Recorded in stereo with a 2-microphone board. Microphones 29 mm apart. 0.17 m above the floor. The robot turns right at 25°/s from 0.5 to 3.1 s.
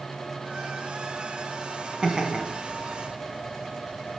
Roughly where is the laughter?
Right.